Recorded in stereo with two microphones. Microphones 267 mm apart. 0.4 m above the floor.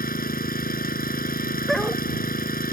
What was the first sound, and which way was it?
An engine running, 35° left (ahead or behind).